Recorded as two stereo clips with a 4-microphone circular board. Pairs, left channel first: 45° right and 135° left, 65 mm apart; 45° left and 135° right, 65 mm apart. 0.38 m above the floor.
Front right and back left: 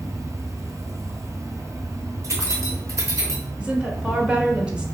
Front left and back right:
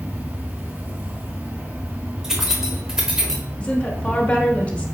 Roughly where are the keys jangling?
Behind left.